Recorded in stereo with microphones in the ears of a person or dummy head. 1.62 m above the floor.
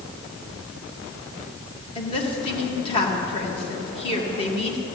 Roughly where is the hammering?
No hammering in this recording.